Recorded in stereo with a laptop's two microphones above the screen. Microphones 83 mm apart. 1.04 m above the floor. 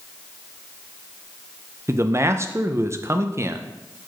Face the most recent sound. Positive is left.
turn(degrees=-35)  # may be behind; listen again after turning